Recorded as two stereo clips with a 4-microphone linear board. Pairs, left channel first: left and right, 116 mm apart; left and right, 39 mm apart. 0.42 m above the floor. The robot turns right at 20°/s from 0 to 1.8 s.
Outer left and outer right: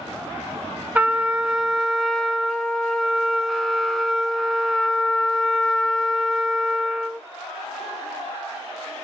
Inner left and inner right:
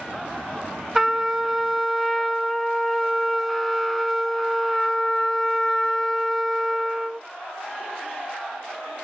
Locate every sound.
0.9 s a trumpet: 15° right (ahead or behind), 0.6 m; by 7.2 s centre (ahead or behind), 0.6 m